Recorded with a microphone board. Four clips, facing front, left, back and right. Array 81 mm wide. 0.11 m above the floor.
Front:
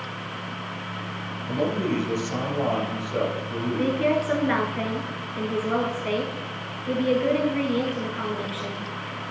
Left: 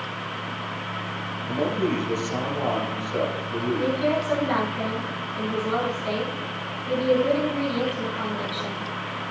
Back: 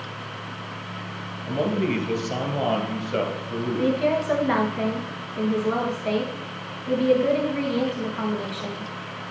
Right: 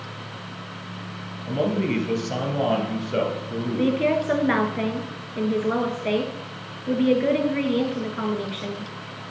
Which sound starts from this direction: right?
A woman speaking, at 3.8 s.